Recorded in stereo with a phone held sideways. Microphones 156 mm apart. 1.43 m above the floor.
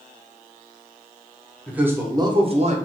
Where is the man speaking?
5° right (ahead or behind), 0.8 m; by 2.8 s 50° right (ahead or behind), 0.7 m.